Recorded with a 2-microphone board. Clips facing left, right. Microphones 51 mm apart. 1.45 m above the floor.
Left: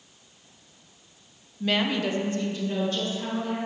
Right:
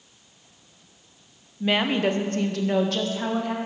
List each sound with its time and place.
1.6 s a woman speaking: 10° right (ahead or behind), 1.1 m; by 3.5 s 85° right, 2.5 m